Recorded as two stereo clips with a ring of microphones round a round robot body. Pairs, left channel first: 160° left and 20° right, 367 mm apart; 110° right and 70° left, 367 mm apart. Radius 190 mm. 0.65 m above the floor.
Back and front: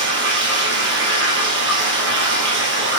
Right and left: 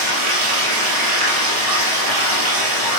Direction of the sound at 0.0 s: 40° left.